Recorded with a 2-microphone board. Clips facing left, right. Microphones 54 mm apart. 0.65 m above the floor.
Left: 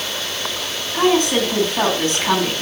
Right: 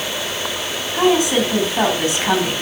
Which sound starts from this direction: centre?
A woman speaking, at 0.9 s.